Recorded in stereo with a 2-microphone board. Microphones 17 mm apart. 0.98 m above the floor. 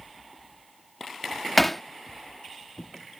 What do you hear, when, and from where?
1.6 s hammering: 5° left (ahead or behind)